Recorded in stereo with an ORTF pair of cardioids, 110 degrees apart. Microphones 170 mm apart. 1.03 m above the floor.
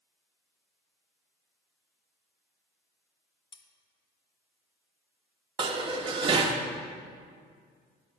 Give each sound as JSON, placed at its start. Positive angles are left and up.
{"t": 3.5, "sound": "cutlery clinking", "azimuth_deg": 30, "distance_m": 1.0}
{"t": 5.6, "sound": "dishes clattering", "azimuth_deg": -30, "distance_m": 1.0}